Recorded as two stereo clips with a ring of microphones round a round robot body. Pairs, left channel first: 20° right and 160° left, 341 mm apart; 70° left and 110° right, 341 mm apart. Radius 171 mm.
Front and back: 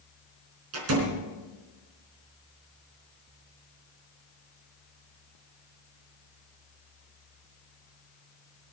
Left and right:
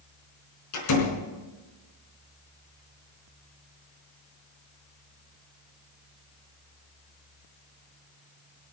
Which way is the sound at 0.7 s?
105° left.